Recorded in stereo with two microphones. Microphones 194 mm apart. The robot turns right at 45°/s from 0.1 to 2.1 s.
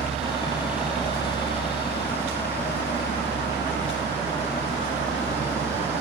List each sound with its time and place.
0.0 s a helicopter: 35° right (ahead or behind); by 6.0 s 70° left (ahead or behind)